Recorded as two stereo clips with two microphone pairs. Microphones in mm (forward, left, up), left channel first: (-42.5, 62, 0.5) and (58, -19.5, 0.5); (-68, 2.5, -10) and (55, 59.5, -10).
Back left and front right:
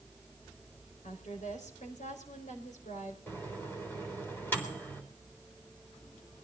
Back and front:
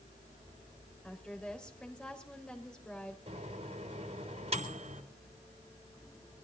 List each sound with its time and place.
1.0 s a woman speaking: 120° left, 4.5 m
3.3 s a microwave: 65° left, 3.5 m